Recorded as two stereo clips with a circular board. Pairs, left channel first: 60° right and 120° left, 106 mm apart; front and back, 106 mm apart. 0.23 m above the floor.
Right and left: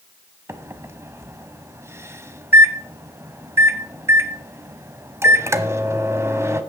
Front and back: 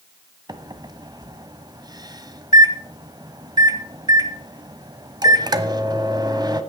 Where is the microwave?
170° left, 1.0 m.